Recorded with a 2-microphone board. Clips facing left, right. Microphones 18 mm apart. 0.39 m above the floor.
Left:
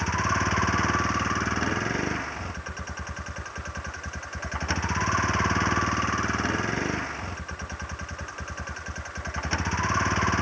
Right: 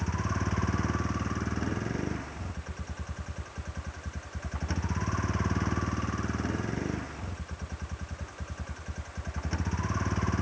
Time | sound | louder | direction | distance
0.0 | a vehicle | left 8 dB | 35° left (ahead or behind) | ?